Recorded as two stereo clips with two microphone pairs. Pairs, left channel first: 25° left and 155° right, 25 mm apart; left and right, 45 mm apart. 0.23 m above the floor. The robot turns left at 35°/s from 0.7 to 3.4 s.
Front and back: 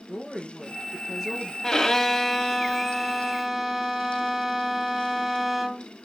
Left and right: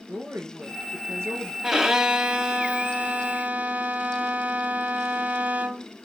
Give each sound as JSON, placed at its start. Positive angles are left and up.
{"t": 0.1, "sound": "a woman speaking", "azimuth_deg": -50, "distance_m": 4.5}
{"t": 1.6, "sound": "a violin", "azimuth_deg": -20, "distance_m": 1.5}